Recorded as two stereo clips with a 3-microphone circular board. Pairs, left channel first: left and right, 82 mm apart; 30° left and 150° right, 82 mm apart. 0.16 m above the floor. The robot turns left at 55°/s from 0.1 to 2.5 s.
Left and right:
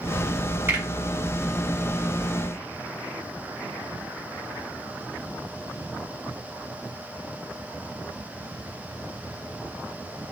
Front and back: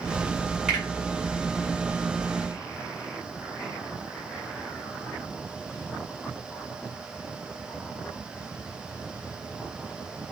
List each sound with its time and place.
0.7 s a finger snap: 75° right, 1.7 m; by 0.8 s 85° right, 1.7 m